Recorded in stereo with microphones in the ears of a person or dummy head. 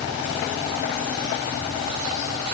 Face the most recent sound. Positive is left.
No sound to turn to.